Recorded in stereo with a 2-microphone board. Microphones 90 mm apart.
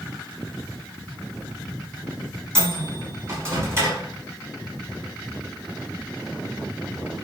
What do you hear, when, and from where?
2.5 s a microwave: 35° right (ahead or behind), 1.0 m